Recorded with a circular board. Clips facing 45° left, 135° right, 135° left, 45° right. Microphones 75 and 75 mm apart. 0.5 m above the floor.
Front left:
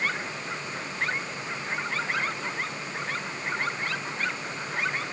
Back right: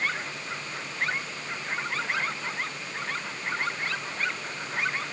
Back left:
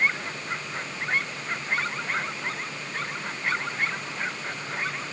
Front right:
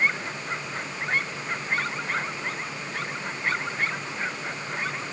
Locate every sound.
Only background noise.